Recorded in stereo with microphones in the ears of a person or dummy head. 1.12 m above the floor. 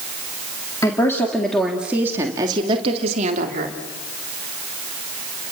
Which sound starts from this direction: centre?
A woman speaking, at 0.8 s.